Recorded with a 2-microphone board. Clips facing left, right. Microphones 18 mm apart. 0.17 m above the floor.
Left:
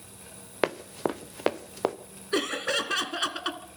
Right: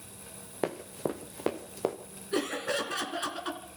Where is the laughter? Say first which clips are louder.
Left 3 dB; 50° left (ahead or behind), 1.9 m.